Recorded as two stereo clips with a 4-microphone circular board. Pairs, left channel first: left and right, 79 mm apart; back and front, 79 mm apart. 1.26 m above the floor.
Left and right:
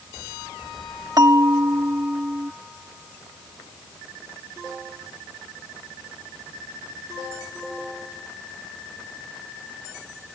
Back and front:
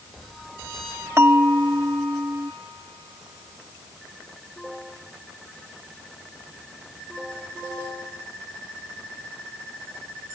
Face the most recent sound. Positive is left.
turn(degrees=-55)